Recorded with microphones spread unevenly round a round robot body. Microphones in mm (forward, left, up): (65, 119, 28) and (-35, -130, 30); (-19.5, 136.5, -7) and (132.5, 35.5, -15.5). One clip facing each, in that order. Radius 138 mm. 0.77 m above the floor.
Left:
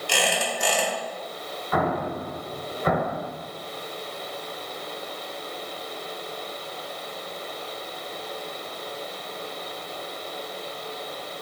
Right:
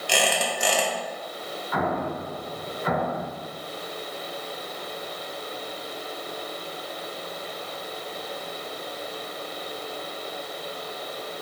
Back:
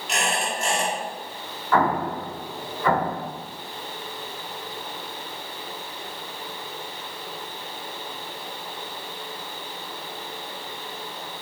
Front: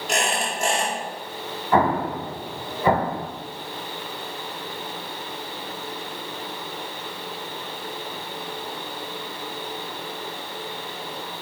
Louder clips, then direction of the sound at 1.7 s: Left 2 dB, front 2 dB; 35° left.